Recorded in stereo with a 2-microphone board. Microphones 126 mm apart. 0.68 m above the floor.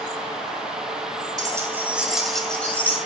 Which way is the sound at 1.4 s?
30° right (ahead or behind).